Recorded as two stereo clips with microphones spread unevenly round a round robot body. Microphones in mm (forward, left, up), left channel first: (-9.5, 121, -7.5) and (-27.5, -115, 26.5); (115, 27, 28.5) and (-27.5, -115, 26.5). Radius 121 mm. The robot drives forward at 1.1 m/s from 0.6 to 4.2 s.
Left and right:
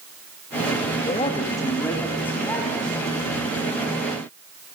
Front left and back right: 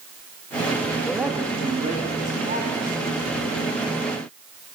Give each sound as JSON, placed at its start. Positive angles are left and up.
{"t": 1.0, "sound": "a man speaking", "azimuth_deg": 130, "distance_m": 0.8}